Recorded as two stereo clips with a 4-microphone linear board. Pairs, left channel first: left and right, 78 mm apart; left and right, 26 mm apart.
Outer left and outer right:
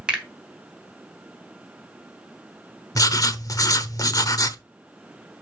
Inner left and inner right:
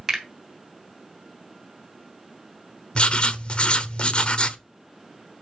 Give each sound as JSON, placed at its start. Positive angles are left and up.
{"t": 0.1, "sound": "a finger snap", "side_deg": -15, "distance_m": 3.0}
{"t": 3.0, "sound": "writing", "side_deg": 45, "distance_m": 0.9}